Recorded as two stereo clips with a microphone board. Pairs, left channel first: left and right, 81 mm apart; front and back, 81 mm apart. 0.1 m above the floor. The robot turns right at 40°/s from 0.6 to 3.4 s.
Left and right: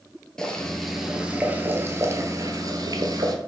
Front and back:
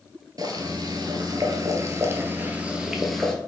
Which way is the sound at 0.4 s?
170° left.